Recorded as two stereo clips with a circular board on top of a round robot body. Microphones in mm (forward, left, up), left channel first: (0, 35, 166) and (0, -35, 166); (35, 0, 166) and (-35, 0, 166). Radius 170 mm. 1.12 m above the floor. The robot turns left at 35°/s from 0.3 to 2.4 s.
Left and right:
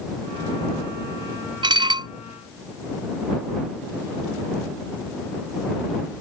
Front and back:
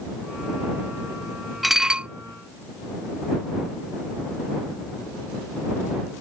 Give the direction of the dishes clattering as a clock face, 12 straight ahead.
3 o'clock.